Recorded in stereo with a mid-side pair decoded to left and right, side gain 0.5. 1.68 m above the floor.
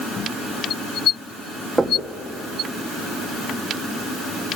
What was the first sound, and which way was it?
Knocking, 15° right.